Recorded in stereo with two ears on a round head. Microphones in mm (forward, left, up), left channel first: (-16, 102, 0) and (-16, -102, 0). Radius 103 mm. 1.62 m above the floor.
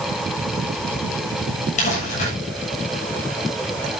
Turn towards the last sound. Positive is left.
turn(degrees=35)  # may be behind; listen again after turning